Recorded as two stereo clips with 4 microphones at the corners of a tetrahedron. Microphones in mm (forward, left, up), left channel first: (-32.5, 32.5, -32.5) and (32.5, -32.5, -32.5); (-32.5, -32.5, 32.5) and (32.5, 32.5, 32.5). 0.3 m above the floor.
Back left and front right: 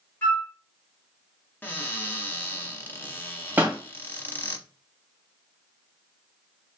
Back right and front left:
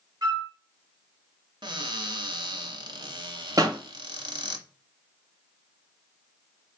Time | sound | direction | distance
0.2 | a flute | 75° left | 1.0 m
1.6 | a cupboard door | 70° left | 0.8 m
3.6 | a pop | 15° left | 1.0 m